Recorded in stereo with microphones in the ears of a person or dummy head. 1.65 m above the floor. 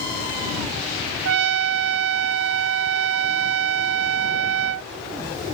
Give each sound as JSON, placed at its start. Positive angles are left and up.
{"t": 1.2, "sound": "a trumpet", "side_deg": -65}